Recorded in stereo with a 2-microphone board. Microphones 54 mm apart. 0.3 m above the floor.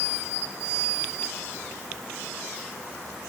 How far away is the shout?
I don't hear a shout.